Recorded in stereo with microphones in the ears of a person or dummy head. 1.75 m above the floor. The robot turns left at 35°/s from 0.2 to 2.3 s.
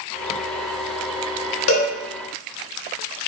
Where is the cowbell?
75° left (ahead or behind), 0.8 m; by 1.9 s 70° left (ahead or behind), 0.8 m.